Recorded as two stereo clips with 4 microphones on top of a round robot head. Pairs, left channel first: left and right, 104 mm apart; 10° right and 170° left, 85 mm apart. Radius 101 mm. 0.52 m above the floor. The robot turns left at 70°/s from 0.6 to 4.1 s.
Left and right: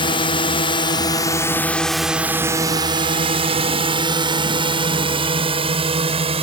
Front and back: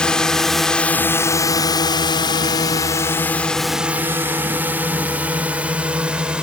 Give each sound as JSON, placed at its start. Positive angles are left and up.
{"t": 0.0, "sound": "a drone", "azimuth_deg": 70}